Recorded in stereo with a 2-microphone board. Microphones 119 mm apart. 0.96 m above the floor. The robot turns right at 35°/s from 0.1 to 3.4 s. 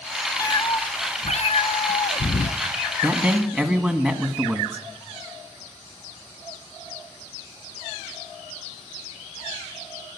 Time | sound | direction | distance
0.4 | a cat meowing | 30° left | 0.6 m
3.0 | a man speaking | 10° right (ahead or behind) | 1.5 m